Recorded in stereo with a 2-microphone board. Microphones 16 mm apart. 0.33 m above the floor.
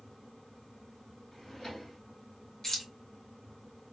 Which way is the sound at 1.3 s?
50° left (ahead or behind).